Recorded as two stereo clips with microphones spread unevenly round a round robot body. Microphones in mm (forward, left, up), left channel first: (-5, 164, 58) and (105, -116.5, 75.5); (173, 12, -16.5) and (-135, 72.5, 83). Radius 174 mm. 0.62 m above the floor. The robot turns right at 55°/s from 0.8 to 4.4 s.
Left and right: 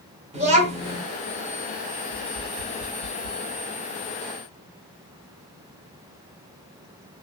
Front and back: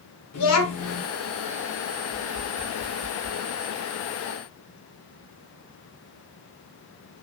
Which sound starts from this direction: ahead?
A child speaking, at 0.3 s.